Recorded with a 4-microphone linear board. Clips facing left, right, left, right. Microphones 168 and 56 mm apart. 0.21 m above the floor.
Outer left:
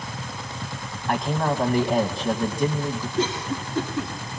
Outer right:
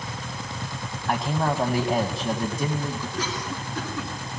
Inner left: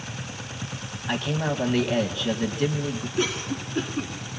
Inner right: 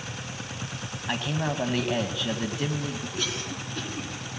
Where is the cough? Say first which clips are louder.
Outer left 5 dB, inner left 6 dB; 25° left (ahead or behind), 2 m.